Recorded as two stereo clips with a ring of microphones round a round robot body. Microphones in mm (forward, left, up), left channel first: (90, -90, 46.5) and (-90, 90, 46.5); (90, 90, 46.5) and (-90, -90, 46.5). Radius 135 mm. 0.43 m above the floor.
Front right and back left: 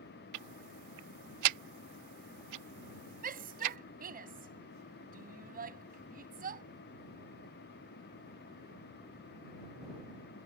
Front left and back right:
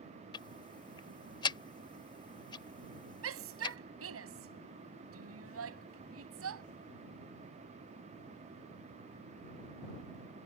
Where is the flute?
I don't hear a flute.